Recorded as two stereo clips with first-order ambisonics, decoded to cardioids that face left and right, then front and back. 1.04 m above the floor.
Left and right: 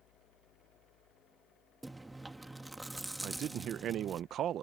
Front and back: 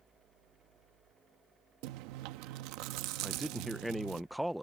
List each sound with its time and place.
1.8 s chewing: 175° right
3.2 s a man speaking: 100° right